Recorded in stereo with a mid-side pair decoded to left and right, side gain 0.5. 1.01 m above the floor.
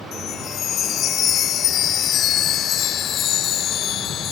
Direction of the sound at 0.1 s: 65° left.